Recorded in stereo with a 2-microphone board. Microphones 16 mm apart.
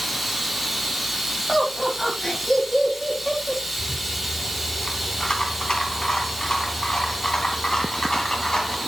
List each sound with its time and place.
0.0 s running water: centre (ahead or behind), 2.5 m
1.5 s laughter: 50° left (ahead or behind), 2.5 m
3.8 s a rattle: 50° left (ahead or behind), 2.5 m